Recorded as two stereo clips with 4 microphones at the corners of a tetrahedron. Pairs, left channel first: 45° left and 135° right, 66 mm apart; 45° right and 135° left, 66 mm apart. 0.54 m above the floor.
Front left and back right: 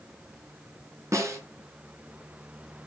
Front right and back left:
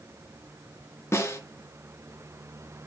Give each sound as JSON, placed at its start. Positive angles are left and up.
{"t": 1.1, "sound": "a snare drum", "azimuth_deg": -95, "distance_m": 4.0}